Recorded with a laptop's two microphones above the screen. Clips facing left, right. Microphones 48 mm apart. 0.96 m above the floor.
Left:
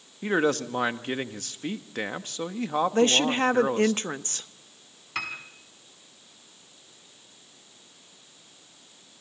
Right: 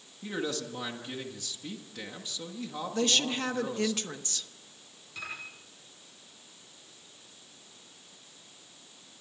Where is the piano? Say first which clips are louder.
Left 7 dB; 85° left, 4.5 m.